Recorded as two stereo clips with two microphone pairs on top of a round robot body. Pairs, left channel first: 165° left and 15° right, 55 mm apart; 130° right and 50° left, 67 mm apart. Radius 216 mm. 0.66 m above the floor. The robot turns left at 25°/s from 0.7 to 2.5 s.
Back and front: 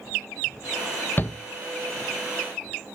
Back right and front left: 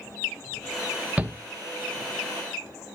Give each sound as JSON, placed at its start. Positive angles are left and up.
{"t": 1.2, "sound": "a shout", "azimuth_deg": 120, "distance_m": 0.8}